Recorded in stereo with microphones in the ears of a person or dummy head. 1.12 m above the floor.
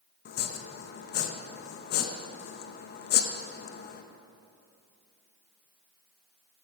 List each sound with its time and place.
0.2 s chopping: 55° left (ahead or behind), 0.8 m